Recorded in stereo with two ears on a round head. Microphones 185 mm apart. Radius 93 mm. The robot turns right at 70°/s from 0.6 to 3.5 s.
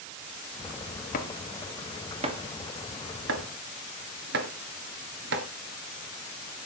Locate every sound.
1.1 s chopping: 40° left (ahead or behind), 1.8 m; by 5.5 s 55° right (ahead or behind), 1.8 m